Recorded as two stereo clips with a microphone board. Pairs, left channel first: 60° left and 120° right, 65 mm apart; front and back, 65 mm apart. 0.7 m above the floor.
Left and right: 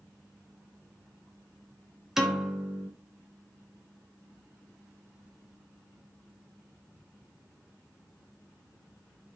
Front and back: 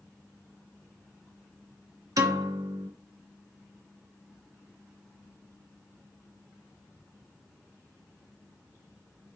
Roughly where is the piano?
Behind left.